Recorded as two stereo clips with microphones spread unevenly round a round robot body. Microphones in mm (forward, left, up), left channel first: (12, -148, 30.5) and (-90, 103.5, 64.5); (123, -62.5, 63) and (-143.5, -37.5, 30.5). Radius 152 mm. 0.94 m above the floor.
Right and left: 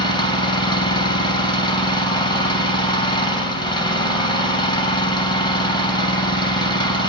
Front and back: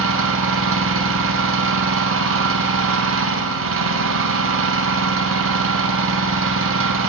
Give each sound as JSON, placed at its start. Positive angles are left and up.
{"t": 0.0, "sound": "an engine running", "azimuth_deg": -145, "distance_m": 3.0}